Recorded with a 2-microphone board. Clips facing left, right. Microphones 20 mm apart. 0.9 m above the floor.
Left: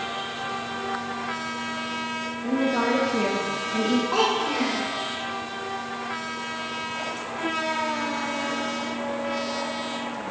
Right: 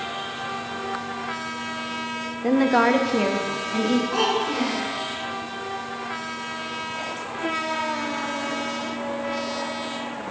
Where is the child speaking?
40° left (ahead or behind), 1.5 m.